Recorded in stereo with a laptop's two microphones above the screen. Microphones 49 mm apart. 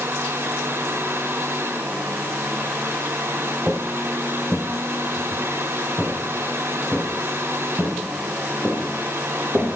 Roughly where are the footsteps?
Right.